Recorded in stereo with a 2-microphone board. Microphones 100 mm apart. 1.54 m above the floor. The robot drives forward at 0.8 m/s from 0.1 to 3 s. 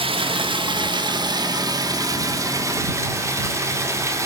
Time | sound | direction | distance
0.0 | running water | 65° right (ahead or behind) | 2 m